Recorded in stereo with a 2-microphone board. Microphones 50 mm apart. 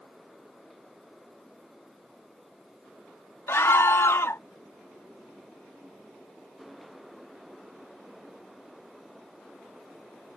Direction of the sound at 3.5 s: 60° left (ahead or behind).